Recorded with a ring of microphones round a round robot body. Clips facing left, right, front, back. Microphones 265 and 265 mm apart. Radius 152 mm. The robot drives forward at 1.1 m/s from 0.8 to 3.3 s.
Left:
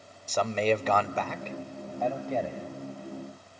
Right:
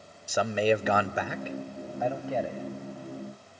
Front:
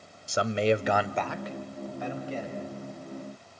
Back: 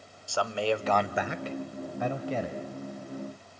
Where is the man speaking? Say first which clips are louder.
Right 1 dB, front 4 dB; 25° right, 0.9 m; by 2.6 s 175° right, 1.9 m.